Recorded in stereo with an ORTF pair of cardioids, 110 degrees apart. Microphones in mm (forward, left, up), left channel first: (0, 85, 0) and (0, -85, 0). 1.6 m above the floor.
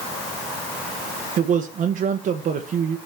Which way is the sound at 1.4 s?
50° right.